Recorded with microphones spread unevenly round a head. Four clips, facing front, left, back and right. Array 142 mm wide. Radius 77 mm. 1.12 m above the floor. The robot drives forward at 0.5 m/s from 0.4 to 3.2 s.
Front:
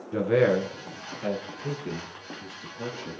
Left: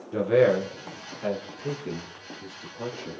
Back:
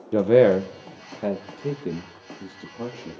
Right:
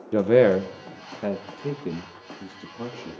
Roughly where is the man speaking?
Behind.